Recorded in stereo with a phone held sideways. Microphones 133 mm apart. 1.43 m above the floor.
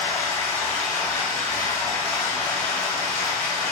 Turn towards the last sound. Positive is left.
turn(degrees=20)  # may be behind; listen again after turning